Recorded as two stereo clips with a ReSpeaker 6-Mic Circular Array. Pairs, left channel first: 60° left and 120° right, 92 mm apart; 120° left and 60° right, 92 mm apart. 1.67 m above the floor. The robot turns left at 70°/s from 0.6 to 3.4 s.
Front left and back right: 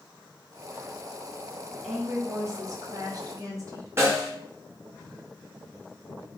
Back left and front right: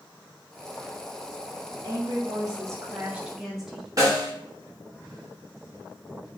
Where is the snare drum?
75° right, 0.8 m.